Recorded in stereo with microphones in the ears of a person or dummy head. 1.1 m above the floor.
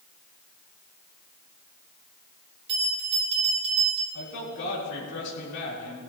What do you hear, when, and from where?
2.7 s a bell: 30° right (ahead or behind), 3 m
4.1 s a man speaking: 65° left (ahead or behind), 4 m